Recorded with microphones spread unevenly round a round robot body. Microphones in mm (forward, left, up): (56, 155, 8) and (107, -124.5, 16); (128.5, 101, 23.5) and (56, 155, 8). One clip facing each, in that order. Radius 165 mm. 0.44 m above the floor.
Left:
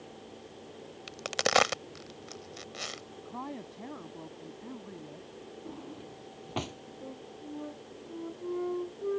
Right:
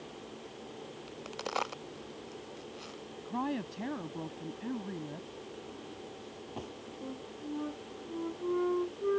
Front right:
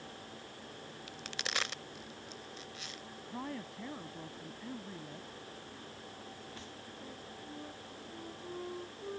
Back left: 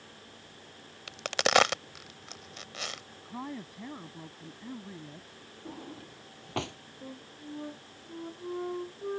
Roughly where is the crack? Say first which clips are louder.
Left 10 dB, back left 16 dB; behind left.